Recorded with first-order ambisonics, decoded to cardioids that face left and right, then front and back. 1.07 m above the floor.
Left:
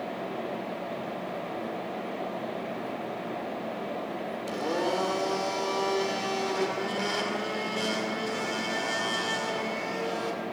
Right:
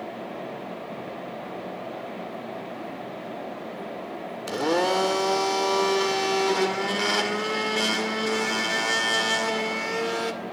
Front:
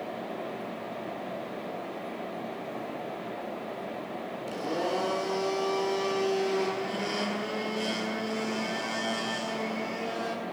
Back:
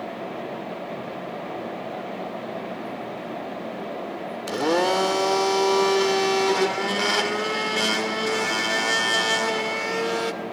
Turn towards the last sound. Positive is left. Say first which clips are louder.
# right 6 dB, back 10 dB
turn(degrees=-150)